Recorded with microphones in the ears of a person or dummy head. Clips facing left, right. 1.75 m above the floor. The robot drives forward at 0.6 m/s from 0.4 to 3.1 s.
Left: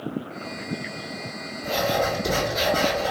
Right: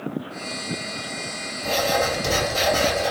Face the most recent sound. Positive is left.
turn(degrees=-75)  # may be behind; listen again after turning